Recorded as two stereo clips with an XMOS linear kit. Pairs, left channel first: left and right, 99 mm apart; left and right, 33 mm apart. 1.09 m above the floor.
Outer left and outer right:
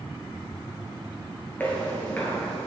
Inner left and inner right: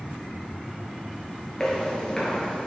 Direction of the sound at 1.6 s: 20° left (ahead or behind).